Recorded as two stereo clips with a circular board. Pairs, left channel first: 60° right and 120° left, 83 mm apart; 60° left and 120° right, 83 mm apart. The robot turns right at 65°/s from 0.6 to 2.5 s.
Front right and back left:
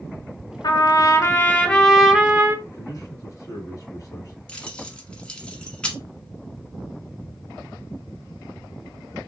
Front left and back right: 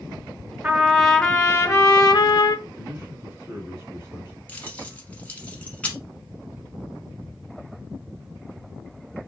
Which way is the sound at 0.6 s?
55° right.